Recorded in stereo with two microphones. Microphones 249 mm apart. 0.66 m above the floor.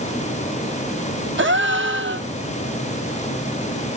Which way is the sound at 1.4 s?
50° right (ahead or behind).